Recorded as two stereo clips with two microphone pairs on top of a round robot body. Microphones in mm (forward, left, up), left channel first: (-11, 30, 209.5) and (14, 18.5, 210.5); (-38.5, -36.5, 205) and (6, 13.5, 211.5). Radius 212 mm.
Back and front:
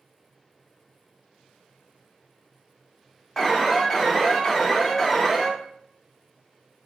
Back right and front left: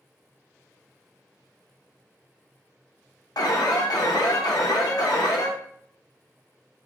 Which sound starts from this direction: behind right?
An alarm, at 3.4 s.